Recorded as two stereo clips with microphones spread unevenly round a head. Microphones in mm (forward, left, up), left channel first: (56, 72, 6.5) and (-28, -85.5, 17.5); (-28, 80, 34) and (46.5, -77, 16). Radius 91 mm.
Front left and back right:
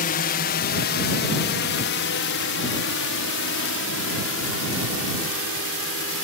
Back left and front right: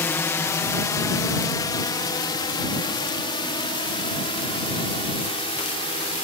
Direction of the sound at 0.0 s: 40° left.